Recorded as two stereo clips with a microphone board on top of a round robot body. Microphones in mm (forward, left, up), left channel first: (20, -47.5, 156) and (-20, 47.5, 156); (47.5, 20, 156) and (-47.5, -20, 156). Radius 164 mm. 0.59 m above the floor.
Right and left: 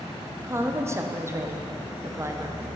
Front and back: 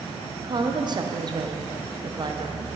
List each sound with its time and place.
0.4 s a woman speaking: 170° left, 0.9 m